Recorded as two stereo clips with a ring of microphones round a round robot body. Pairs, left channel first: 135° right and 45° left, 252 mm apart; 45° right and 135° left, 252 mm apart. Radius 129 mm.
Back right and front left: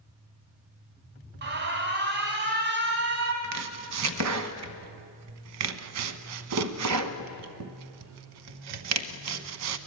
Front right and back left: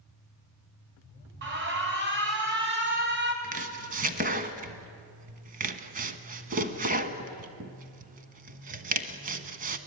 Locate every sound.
1.4 s an alarm: 90° left, 3.5 m
3.4 s chopping: 75° left, 1.1 m